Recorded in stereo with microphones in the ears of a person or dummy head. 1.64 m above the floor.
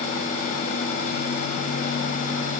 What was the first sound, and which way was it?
Only background noise.